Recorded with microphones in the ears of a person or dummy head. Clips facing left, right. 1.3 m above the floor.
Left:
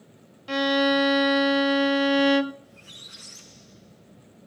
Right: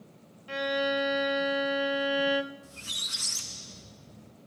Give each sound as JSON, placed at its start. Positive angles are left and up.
{"t": 0.5, "sound": "a violin", "side_deg": 65, "distance_m": 0.7}
{"t": 2.6, "sound": "a squeak", "side_deg": -65, "distance_m": 0.9}